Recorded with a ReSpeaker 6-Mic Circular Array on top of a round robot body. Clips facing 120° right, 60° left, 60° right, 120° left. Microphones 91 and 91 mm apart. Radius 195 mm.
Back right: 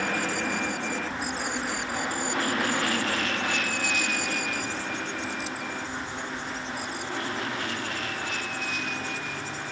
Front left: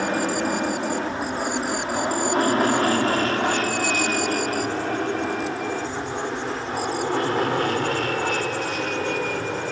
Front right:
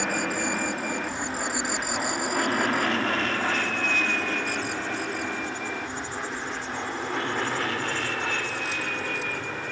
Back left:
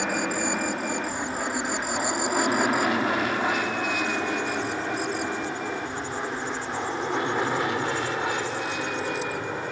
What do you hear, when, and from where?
0.0 s an aircraft: 40° left; by 9.7 s 50° left